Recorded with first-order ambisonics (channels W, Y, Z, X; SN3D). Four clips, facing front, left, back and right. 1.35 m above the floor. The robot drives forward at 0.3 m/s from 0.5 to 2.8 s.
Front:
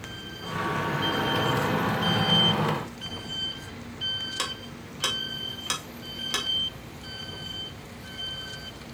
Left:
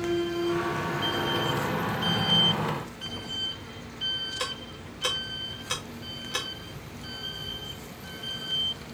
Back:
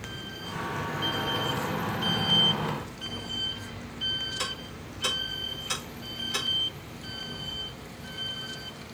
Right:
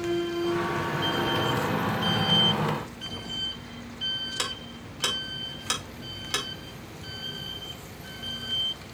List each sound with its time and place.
4.4 s ticking: 50° right, 3 m